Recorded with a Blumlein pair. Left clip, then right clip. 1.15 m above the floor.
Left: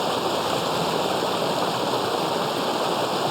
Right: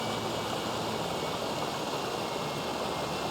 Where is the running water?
25° left.